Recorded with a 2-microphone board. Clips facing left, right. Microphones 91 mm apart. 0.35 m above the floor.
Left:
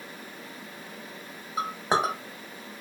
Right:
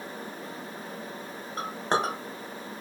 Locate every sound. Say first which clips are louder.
1.6 s a clink: left 2 dB; 5° left (ahead or behind), 0.8 m